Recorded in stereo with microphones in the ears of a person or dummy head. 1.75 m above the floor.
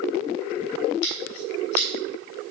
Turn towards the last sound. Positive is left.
turn(degrees=70)  # may be behind; listen again after turning